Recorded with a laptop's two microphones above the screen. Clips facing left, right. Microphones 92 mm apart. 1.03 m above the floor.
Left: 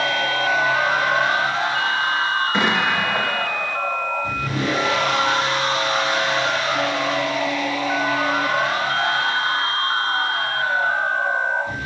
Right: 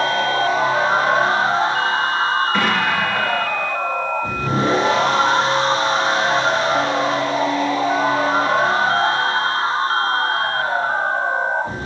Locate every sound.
0.0 s a machine running: 35° right (ahead or behind), 6.5 m
2.5 s an explosion: 20° left (ahead or behind), 1.6 m